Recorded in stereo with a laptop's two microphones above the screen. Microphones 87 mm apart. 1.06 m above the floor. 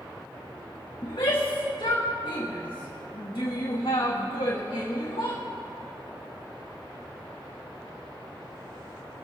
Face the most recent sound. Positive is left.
turn(degrees=80)